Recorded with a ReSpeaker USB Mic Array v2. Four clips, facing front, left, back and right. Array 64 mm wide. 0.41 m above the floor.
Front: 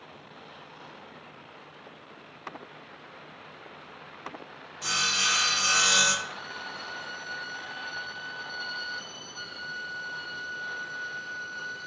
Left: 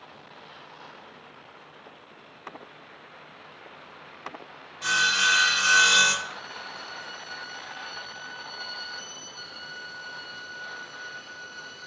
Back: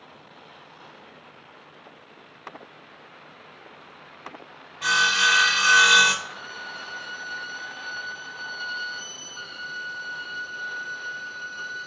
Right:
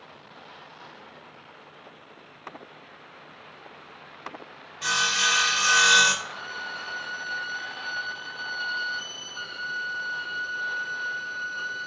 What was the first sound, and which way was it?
Sawing, 160° right.